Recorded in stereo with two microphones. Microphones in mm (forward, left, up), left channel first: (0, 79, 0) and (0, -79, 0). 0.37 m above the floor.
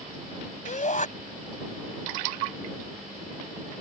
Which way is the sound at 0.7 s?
55° left (ahead or behind).